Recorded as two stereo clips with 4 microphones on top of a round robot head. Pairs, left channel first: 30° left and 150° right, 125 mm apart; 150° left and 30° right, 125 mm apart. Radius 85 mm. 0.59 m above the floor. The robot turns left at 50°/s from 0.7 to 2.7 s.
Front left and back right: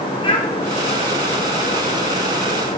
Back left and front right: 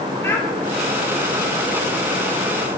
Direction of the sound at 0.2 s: 75° left.